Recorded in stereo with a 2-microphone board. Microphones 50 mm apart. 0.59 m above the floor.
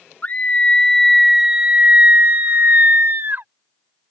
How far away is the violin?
I don't hear a violin.